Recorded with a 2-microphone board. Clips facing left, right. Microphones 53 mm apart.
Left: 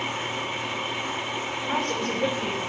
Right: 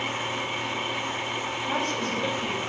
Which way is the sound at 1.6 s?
55° left (ahead or behind).